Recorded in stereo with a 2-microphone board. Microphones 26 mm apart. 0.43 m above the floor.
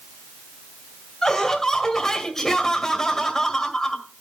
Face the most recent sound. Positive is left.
turn(degrees=20)  # may be behind; listen again after turning